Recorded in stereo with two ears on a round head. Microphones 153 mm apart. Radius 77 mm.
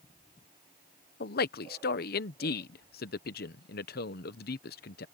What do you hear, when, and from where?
1.2 s a man speaking: 65° left (ahead or behind)